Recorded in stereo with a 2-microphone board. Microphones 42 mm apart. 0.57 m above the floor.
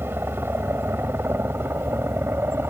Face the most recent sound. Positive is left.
turn(degrees=-65)  # may be behind; listen again after turning